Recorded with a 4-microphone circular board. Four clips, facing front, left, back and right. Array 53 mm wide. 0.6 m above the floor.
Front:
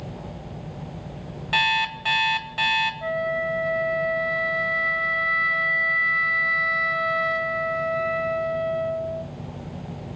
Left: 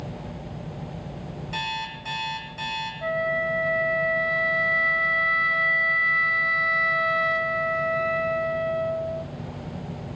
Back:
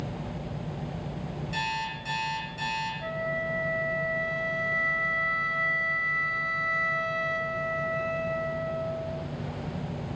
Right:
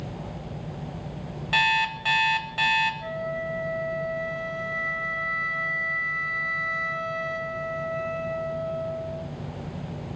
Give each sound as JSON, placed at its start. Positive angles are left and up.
{"t": 1.5, "sound": "an alarm clock", "azimuth_deg": -40, "distance_m": 1.8}
{"t": 3.0, "sound": "a flute", "azimuth_deg": 55, "distance_m": 1.0}